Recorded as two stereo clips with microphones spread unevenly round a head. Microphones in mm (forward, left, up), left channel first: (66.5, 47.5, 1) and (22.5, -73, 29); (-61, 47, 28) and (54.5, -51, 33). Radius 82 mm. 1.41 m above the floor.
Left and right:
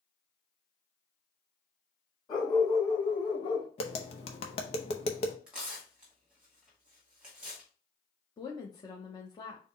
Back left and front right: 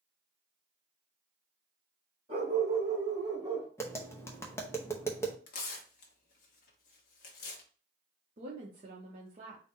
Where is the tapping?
75° left, 0.7 m.